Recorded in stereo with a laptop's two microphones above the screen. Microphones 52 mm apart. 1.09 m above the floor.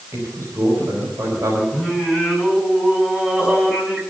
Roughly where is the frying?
No frying in this recording.